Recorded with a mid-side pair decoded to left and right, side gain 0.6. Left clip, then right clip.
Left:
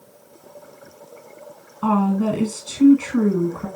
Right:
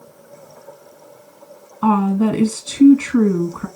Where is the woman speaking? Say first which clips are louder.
Right 3 dB; 25° right, 1.7 m.